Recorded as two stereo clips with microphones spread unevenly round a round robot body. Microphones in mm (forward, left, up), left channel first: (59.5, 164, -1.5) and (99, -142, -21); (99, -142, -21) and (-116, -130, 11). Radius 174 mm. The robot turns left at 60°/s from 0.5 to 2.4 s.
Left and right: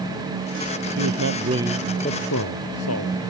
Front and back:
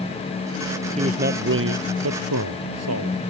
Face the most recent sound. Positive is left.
turn(degrees=150)